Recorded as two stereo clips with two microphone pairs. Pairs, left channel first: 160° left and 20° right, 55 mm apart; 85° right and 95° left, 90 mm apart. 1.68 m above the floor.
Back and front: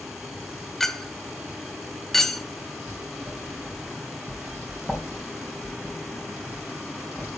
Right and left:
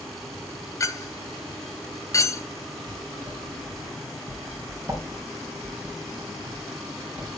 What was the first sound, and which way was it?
A clink, 115° right.